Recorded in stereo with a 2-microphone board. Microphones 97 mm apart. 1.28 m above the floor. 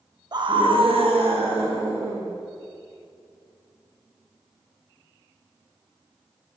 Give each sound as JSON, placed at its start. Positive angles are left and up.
{"t": 0.3, "sound": "a scream", "side_deg": -45, "distance_m": 0.5}